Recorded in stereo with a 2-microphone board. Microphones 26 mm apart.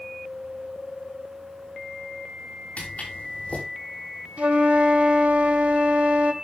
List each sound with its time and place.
2.8 s footsteps: 65° left (ahead or behind), 8 m
4.4 s a flute: 55° right (ahead or behind), 1.5 m